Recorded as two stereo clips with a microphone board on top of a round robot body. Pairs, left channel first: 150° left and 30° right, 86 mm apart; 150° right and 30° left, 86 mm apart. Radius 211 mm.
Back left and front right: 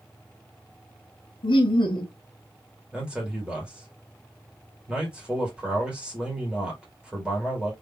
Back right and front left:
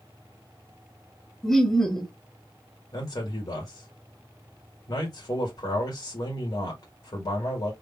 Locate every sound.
1.4 s laughter: 125° left, 1.1 m
2.9 s a man speaking: 110° right, 1.9 m